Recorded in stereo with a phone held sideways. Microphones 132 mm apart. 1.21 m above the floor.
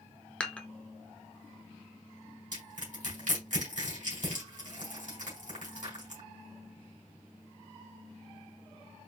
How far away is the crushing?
About 3.5 m.